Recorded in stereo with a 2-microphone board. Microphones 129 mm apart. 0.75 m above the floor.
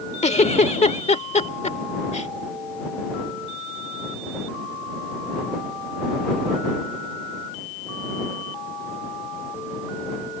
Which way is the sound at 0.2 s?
60° left (ahead or behind).